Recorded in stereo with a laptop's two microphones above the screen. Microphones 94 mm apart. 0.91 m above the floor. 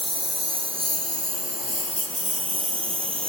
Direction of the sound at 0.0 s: 80° right.